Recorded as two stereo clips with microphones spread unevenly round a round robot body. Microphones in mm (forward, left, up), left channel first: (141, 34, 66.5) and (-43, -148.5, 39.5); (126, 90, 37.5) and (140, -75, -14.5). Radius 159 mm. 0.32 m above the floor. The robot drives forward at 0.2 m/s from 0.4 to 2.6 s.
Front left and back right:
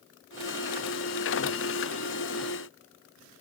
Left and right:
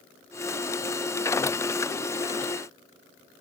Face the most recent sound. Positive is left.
No sound to turn to.